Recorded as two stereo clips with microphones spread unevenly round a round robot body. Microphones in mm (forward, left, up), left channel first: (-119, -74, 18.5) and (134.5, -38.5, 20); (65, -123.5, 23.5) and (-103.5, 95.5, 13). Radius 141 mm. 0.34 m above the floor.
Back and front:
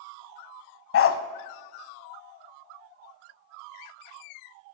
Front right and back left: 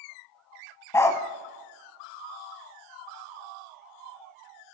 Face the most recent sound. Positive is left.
turn(degrees=-135)